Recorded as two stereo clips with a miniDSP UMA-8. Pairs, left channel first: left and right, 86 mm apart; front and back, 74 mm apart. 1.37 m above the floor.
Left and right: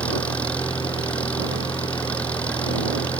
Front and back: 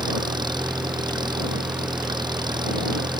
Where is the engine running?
165° left.